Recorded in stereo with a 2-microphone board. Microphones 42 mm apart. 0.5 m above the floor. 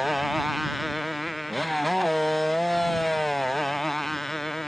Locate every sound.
0.0 s a motorcycle: 5° right (ahead or behind); by 4.7 s 5° left (ahead or behind)